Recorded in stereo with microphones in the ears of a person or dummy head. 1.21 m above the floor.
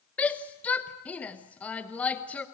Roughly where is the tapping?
No tapping in this recording.